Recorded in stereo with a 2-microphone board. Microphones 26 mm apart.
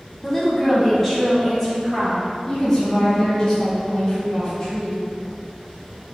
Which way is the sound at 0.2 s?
15° left (ahead or behind).